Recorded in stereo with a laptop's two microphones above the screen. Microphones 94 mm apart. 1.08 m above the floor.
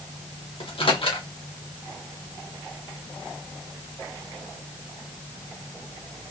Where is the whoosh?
No whoosh in this recording.